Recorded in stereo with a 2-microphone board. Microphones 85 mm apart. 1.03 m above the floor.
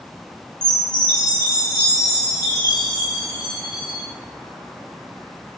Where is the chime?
50° left (ahead or behind), 0.7 m.